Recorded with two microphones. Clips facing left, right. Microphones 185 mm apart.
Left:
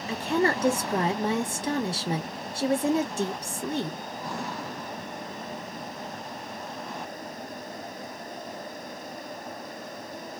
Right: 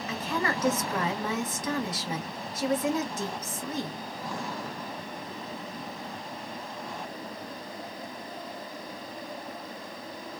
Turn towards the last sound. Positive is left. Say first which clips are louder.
# left 6 dB
turn(degrees=30)  # may be behind; listen again after turning